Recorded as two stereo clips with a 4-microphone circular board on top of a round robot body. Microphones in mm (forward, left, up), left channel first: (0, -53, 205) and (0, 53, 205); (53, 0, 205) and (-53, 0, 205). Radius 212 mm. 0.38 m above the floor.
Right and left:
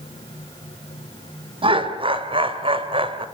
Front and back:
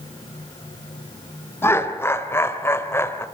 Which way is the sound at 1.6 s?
65° left.